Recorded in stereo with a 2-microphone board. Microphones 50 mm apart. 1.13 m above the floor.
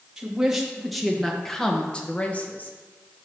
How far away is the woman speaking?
About 1.6 m.